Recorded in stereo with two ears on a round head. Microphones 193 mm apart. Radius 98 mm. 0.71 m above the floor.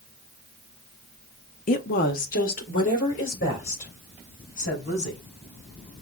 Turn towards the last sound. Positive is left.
turn(degrees=35)  # may be behind; listen again after turning